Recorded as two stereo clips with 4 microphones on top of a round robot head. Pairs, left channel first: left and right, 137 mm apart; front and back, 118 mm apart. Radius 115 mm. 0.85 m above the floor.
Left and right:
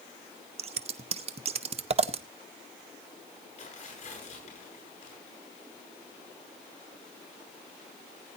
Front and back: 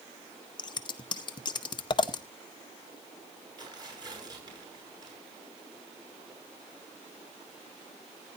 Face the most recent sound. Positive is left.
turn(degrees=125)